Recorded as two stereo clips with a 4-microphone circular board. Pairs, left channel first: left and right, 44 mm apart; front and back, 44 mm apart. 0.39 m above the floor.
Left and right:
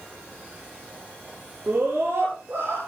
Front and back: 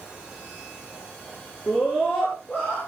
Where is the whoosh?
I don't hear a whoosh.